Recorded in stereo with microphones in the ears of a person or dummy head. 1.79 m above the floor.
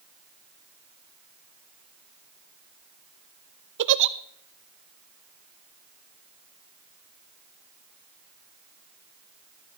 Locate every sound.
3.8 s a giggle: 60° right (ahead or behind), 0.5 m